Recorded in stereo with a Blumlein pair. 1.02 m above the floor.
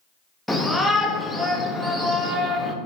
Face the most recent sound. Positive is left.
turn(degrees=5)